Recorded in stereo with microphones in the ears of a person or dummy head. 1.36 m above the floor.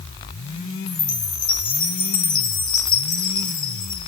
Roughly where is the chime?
Left.